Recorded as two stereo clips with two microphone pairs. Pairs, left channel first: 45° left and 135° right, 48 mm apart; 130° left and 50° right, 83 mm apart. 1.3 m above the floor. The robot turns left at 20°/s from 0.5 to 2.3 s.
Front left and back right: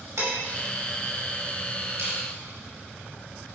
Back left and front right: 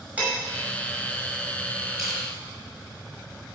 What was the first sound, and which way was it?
Dishes clattering, 125° right.